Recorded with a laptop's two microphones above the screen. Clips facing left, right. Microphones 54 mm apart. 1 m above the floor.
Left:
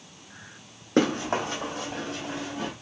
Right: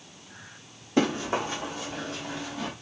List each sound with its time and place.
1.0 s running footsteps: 65° left (ahead or behind), 2 m; by 2.7 s 30° left (ahead or behind), 1.6 m